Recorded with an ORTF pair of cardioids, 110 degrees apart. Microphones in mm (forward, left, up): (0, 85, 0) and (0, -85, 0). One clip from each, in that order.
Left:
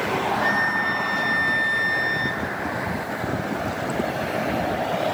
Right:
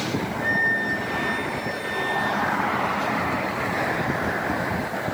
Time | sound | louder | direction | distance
0.4 | a flute | right 2 dB | 15° left | 1.3 m